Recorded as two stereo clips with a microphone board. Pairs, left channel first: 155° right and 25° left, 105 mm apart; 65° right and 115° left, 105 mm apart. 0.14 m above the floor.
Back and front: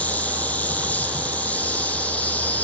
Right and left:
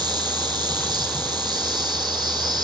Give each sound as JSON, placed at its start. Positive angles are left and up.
{"t": 0.0, "sound": "an insect", "azimuth_deg": 135, "distance_m": 2.0}